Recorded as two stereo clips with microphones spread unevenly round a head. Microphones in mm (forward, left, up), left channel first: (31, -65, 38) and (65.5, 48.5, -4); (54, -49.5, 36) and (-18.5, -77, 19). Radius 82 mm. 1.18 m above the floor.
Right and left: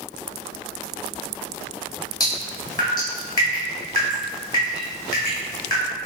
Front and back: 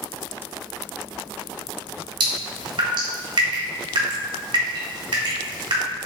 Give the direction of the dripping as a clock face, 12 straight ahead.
6 o'clock.